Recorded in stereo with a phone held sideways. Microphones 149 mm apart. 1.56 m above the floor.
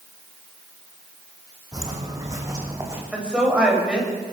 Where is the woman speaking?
5° right (ahead or behind), 7 m.